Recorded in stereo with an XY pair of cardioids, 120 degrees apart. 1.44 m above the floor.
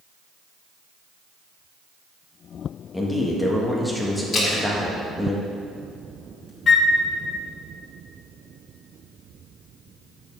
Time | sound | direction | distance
2.9 | a man speaking | 10° left | 1.5 m
4.3 | a splash | 35° left | 2.5 m
6.7 | a flute | 40° left | 0.7 m